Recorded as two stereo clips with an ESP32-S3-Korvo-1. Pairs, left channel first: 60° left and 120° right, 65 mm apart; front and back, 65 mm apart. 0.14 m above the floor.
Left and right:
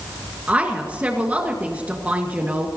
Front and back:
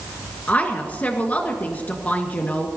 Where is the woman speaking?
60° right, 1.9 m.